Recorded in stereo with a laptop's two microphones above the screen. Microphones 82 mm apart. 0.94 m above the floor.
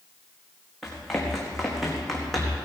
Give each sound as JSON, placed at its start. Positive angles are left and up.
{"t": 0.8, "sound": "running footsteps", "side_deg": 5, "distance_m": 5.0}